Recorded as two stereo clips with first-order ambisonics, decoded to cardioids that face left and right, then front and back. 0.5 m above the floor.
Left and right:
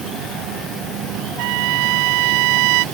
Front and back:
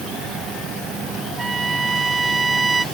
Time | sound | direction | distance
1.4 | a trumpet | 105° right | ?